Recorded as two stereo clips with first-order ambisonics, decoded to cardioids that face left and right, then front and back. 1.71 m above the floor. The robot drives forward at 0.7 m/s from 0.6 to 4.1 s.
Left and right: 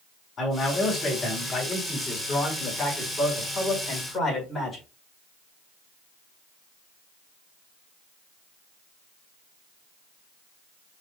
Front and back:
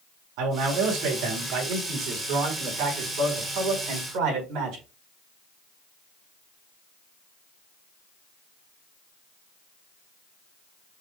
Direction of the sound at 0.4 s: 155° left.